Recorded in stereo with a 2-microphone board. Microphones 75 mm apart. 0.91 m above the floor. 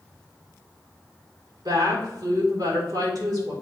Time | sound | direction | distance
1.6 | a woman speaking | 70° right (ahead or behind) | 3 m